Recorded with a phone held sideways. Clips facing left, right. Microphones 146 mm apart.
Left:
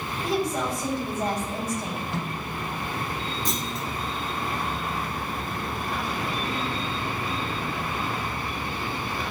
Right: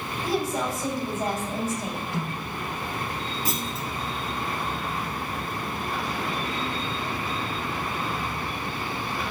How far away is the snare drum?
About 6 m.